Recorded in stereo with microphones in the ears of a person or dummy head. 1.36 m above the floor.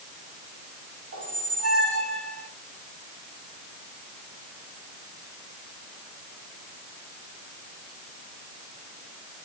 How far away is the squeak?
About 1.5 m.